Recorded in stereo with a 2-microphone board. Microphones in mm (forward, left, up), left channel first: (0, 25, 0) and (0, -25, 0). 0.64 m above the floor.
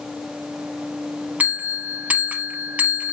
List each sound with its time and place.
1.4 s a bell: 30° right (ahead or behind), 0.7 m